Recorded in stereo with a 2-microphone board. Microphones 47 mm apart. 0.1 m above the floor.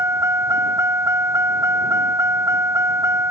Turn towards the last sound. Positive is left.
turn(degrees=-75)  # may be behind; listen again after turning